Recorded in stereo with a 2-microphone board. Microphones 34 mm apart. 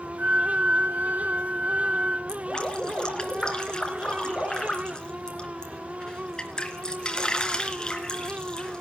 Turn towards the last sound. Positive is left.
turn(degrees=25)  # may be behind; listen again after turning